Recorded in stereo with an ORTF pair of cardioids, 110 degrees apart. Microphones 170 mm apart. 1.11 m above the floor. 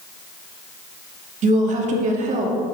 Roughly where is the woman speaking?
Ahead right.